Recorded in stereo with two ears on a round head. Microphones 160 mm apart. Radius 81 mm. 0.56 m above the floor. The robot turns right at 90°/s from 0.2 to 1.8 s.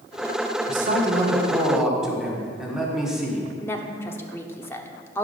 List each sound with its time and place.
0.7 s a man speaking: 105° right, 1.7 m; by 3.5 s 5° right, 1.7 m
3.6 s a woman speaking: 15° left (ahead or behind), 1.0 m